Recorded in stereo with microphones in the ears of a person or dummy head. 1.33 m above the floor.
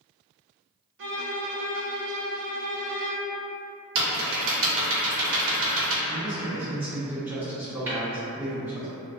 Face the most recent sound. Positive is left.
turn(degrees=-10)  # may be behind; listen again after turning